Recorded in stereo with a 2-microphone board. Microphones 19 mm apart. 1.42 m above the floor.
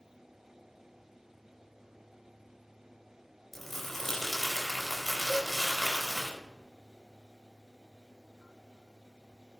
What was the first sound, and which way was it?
Crumpling, 15° left (ahead or behind).